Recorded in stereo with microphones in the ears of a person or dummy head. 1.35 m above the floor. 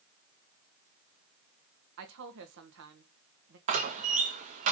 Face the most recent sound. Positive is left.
turn(degrees=-35)  # may be behind; listen again after turning